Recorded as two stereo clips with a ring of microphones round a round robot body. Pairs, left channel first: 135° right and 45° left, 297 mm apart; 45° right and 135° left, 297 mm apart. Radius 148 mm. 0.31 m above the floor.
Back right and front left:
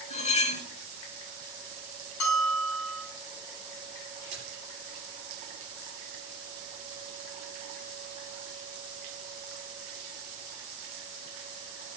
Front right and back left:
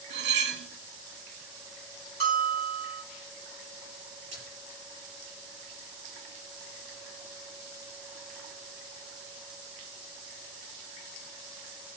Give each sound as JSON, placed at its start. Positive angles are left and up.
{"t": 0.1, "sound": "cutlery clinking", "azimuth_deg": 170, "distance_m": 0.9}
{"t": 2.2, "sound": "a bell", "azimuth_deg": -160, "distance_m": 2.5}
{"t": 4.3, "sound": "a splash", "azimuth_deg": 95, "distance_m": 6.0}